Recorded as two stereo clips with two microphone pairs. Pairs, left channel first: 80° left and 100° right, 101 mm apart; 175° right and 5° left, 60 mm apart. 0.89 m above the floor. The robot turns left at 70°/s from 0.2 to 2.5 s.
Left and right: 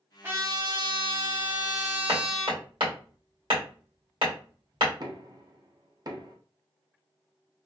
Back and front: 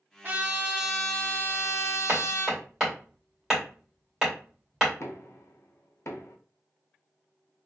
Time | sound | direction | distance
0.2 | a trumpet | 40° right | 1.1 m
2.1 | hammering | 50° right | 2.0 m
5.0 | knocking | 145° right | 0.6 m